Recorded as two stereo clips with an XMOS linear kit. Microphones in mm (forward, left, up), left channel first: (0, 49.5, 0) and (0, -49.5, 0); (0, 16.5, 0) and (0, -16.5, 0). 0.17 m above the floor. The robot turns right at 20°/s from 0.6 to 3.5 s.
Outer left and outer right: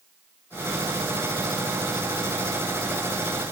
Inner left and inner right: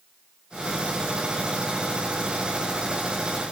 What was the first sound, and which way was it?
Only background noise.